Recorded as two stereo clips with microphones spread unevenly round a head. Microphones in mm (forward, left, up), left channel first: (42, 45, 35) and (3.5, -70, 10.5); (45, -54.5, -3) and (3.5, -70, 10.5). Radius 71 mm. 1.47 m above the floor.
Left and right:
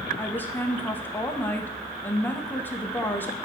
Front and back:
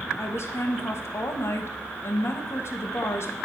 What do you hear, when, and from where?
0.2 s a woman speaking: 5° right, 1.3 m